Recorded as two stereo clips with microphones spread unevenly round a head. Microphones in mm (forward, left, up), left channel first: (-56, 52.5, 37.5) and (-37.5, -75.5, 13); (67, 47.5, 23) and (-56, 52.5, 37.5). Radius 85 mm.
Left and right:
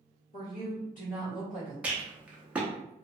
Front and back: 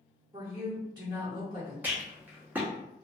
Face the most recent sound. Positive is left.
turn(degrees=180)